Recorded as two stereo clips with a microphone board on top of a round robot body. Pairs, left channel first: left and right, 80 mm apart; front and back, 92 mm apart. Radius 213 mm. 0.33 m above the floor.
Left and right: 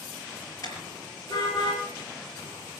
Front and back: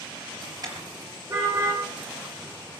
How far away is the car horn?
About 5 m.